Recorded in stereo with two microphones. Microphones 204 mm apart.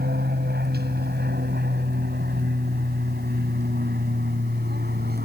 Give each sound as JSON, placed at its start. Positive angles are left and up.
{"t": 0.0, "sound": "an aircraft", "side_deg": -50}